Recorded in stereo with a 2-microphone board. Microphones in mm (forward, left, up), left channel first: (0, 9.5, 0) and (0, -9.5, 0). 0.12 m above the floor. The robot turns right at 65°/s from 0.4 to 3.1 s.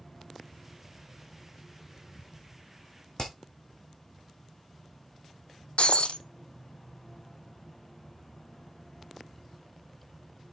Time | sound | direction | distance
3.2 | hammering | 45° left (ahead or behind) | 2.5 m
5.8 | breaking glass | 80° left | 0.6 m